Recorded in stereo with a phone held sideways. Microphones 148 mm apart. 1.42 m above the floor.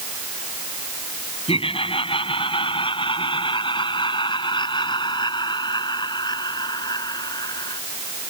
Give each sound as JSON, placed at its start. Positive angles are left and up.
{"t": 1.5, "sound": "laughter", "side_deg": 40}